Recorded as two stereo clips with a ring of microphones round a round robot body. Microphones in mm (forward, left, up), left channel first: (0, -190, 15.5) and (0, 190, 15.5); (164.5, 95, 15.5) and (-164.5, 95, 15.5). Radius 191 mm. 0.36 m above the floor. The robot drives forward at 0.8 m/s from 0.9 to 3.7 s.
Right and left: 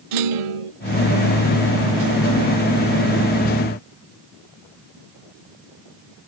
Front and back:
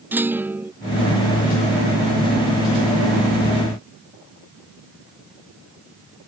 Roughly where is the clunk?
Left.